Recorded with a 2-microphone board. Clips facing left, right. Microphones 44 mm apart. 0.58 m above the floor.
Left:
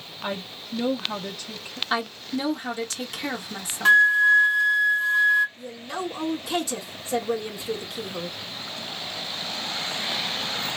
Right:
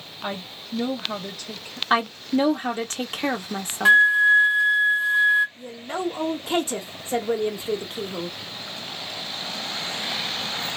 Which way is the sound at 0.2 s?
5° right (ahead or behind).